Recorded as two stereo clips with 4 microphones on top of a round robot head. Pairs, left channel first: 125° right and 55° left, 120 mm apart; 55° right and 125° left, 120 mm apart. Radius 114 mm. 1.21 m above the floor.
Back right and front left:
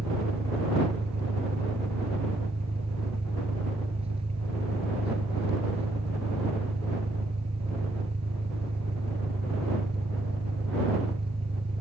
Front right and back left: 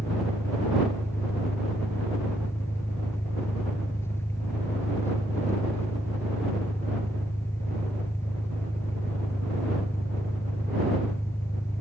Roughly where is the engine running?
Ahead.